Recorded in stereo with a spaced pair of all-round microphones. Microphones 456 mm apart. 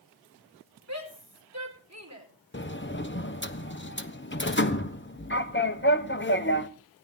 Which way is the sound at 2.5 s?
25° left (ahead or behind).